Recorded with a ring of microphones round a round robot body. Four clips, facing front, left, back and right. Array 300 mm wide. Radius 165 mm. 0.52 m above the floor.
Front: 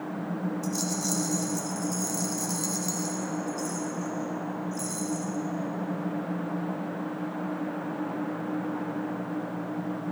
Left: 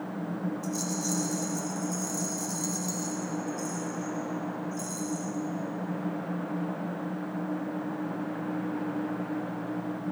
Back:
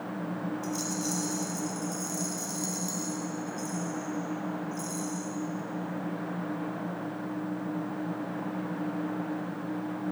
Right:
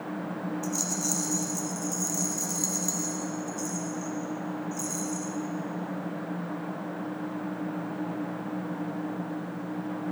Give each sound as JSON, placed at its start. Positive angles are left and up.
{"t": 0.6, "sound": "a rattle", "azimuth_deg": -35, "distance_m": 1.3}